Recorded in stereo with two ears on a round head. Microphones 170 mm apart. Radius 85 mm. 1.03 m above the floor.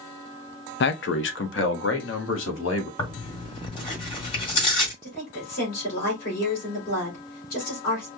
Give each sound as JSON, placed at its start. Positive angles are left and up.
{"t": 0.8, "sound": "a man speaking", "side_deg": 60, "distance_m": 0.6}
{"t": 3.0, "sound": "tearing paper", "side_deg": 25, "distance_m": 2.0}
{"t": 5.0, "sound": "a woman speaking", "side_deg": 45, "distance_m": 3.5}